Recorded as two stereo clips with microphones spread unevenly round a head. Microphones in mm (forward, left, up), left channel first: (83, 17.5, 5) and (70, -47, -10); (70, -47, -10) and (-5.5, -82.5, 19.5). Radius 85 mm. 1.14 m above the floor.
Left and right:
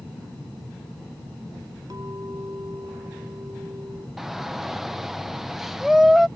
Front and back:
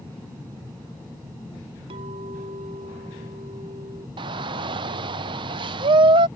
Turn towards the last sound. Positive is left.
turn(degrees=-170)